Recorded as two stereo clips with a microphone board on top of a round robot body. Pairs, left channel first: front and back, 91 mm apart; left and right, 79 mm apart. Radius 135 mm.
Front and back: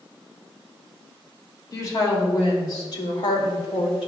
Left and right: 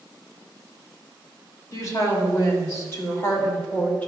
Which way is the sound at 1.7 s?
50° left.